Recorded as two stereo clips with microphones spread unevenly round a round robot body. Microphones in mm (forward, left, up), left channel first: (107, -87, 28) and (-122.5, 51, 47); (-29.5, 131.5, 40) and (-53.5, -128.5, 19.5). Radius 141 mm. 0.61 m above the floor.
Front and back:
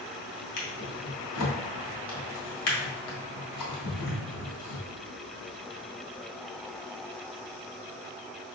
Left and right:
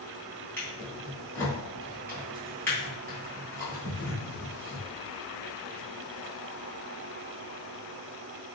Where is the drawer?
Straight ahead, 1.4 m.